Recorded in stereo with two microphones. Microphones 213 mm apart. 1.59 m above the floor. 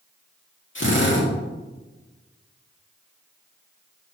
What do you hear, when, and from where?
0.8 s a drill: 65° left (ahead or behind), 1.9 m